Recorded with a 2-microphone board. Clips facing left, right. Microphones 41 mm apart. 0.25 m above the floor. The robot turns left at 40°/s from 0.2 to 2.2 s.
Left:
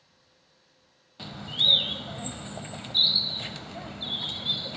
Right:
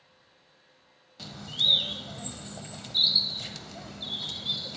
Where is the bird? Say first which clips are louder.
Left 2 dB; 20° left (ahead or behind), 0.5 m; by 4.8 s 25° left (ahead or behind), 0.5 m.